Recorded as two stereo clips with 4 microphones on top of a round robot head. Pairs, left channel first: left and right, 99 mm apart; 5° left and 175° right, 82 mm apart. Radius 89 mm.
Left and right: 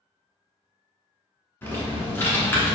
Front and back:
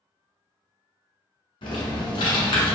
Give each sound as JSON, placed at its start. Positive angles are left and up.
{"t": 1.6, "sound": "typing on a keyboard", "azimuth_deg": 20, "distance_m": 1.0}